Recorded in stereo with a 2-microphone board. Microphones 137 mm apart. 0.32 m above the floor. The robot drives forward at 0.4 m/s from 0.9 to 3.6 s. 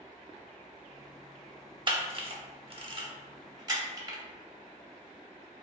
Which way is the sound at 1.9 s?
35° right (ahead or behind).